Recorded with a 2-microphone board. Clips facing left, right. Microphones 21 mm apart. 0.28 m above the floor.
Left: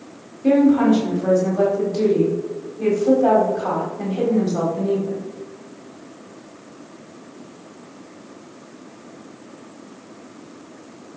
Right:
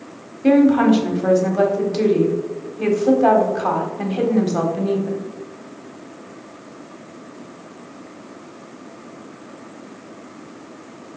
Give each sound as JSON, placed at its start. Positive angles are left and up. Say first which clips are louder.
{"t": 0.4, "sound": "a woman speaking", "louder": "right 1 dB", "side_deg": -45, "distance_m": 1.3}